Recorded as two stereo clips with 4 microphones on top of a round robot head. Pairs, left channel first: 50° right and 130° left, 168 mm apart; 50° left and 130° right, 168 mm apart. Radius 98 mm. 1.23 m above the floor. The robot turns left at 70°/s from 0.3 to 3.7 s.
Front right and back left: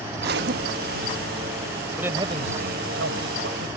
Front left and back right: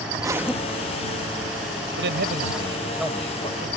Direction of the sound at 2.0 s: 145° right.